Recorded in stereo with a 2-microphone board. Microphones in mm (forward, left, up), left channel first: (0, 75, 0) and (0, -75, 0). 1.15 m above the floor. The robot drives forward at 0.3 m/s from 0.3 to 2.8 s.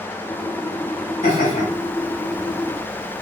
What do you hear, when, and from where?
1.2 s laughter: 65° left (ahead or behind), 1.2 m; by 3.2 s 50° left (ahead or behind), 1.4 m